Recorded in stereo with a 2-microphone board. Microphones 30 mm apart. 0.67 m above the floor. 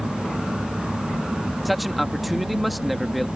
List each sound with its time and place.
1.6 s a man speaking: centre (ahead or behind)